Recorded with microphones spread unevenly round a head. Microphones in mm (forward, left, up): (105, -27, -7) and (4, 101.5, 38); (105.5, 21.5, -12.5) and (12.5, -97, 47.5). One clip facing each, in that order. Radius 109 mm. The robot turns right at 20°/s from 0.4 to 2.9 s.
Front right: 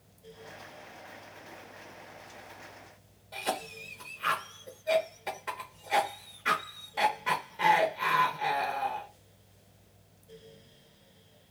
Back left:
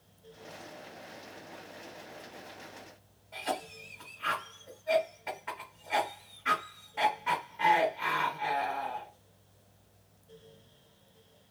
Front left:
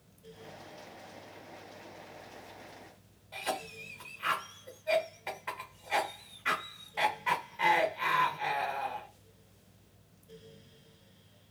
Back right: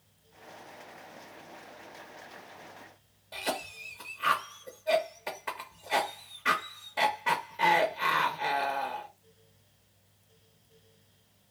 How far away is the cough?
About 1.0 m.